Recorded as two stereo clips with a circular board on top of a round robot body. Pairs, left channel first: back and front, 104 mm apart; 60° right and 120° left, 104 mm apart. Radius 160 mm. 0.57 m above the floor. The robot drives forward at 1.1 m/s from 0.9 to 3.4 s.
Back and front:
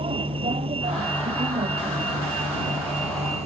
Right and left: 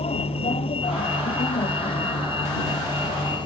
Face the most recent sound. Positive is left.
turn(degrees=-15)